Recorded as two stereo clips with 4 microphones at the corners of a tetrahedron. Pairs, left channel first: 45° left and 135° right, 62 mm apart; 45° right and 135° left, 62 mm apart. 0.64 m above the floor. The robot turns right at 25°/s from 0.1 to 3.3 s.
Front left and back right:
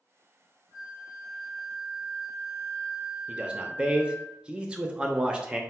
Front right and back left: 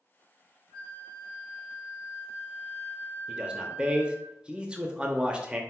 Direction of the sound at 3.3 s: 175° left.